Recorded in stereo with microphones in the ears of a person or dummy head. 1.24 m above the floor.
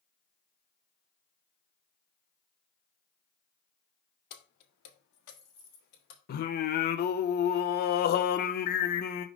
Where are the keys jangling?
55° left (ahead or behind), 1.3 m; by 6.2 s 60° left (ahead or behind), 1.8 m.